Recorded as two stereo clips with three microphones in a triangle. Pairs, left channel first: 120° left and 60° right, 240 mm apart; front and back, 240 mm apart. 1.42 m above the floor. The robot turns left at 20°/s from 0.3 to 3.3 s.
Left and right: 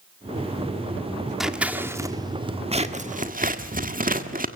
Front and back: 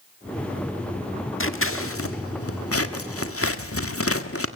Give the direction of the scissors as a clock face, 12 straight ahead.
11 o'clock.